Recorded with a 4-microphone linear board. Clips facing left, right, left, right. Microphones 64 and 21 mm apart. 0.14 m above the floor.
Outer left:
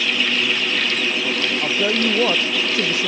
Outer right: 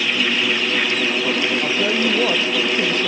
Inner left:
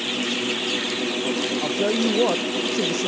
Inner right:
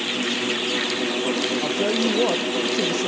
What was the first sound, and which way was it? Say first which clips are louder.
A woman speaking: outer right 1 dB, inner left 2 dB; 10° left (ahead or behind).